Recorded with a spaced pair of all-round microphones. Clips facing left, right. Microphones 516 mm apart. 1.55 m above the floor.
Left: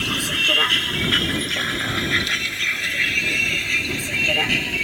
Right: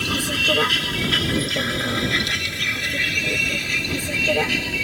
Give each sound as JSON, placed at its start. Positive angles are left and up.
{"t": 0.0, "sound": "a vehicle", "side_deg": -60}